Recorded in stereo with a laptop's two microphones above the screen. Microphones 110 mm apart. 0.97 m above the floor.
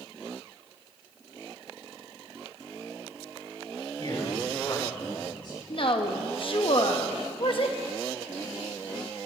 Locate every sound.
4.0 s a man speaking: 45° left (ahead or behind), 6.5 m
5.7 s a woman speaking: 50° left (ahead or behind), 0.9 m